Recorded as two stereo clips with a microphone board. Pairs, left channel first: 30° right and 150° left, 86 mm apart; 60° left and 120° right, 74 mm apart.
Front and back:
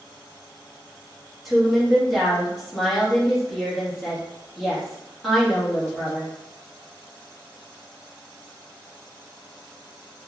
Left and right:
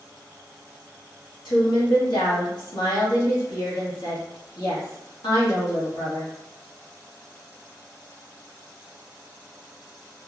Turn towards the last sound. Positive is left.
turn(degrees=60)